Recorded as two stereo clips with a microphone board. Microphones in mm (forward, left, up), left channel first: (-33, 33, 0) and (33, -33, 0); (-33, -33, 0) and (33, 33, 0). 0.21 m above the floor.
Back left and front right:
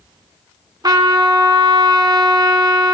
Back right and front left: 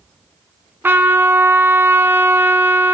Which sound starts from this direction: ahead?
A trumpet, at 0.8 s.